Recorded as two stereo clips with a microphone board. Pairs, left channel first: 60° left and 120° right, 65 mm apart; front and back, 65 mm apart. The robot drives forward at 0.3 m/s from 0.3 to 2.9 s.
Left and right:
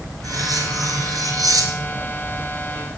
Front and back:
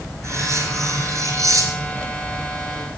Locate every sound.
0.2 s cutlery clinking: 140° right, 2.5 m; by 2.1 s 145° right, 3 m